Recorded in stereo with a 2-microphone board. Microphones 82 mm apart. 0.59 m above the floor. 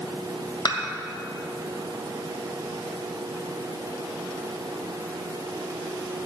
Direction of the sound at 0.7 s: 65° left (ahead or behind).